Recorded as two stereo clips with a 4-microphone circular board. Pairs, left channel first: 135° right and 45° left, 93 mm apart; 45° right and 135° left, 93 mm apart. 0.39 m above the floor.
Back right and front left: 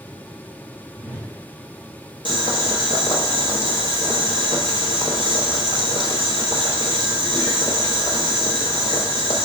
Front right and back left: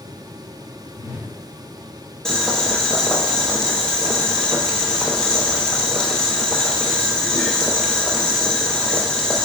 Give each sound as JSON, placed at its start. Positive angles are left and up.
{"t": 0.9, "sound": "a whoosh", "azimuth_deg": 160, "distance_m": 1.6}
{"t": 2.2, "sound": "boiling", "azimuth_deg": -125, "distance_m": 0.9}